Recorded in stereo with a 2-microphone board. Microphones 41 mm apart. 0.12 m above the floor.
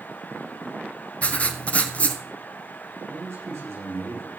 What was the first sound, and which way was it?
Writing, 30° left (ahead or behind).